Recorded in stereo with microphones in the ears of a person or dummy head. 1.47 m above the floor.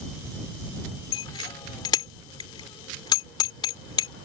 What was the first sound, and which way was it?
A bicycle bell, 25° left (ahead or behind).